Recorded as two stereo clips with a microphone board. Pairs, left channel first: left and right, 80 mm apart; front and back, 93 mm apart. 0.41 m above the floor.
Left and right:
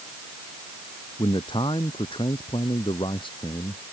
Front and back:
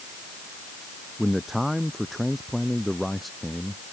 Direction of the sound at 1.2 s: 90° left.